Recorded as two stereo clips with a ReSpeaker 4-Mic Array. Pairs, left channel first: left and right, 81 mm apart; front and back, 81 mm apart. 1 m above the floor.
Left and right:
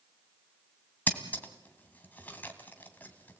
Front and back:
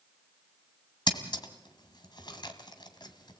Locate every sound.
1.1 s scissors: 20° left, 2 m